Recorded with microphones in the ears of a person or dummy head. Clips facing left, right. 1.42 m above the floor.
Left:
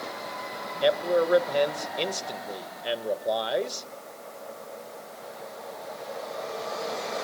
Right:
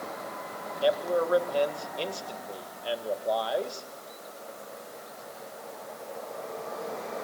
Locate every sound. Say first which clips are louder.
0.8 s a man speaking: left 3 dB; 25° left (ahead or behind), 1.9 m